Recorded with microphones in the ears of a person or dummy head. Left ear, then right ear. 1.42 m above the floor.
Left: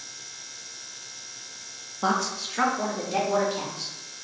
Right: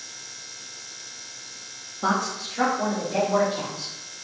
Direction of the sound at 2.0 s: 20° left (ahead or behind).